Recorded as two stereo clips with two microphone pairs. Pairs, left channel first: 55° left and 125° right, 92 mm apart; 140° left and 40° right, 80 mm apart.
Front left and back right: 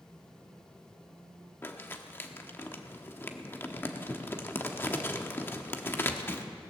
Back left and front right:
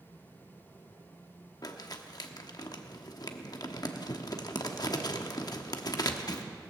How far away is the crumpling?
About 1.0 m.